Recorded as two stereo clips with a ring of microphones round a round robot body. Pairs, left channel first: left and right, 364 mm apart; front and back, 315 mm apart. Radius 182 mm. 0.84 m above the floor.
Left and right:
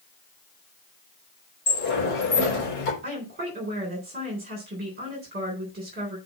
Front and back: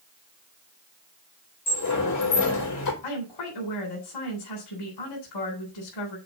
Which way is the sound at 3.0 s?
25° right.